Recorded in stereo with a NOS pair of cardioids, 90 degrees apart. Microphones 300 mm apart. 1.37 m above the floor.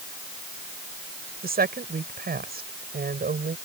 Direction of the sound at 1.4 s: 30° right.